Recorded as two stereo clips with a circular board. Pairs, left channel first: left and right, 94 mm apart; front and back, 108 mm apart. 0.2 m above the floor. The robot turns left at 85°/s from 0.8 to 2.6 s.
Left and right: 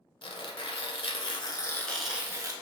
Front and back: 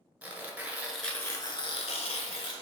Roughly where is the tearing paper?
Left.